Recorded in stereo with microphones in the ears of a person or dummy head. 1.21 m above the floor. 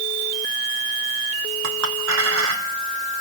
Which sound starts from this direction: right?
A clink, at 1.6 s.